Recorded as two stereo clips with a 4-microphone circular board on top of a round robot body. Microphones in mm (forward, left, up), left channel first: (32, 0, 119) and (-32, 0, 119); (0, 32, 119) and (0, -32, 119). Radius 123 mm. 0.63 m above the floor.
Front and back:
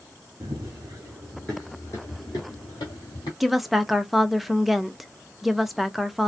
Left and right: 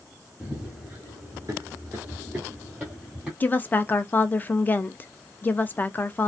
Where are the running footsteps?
170° right, 0.8 m; by 3.3 s 10° right, 1.2 m.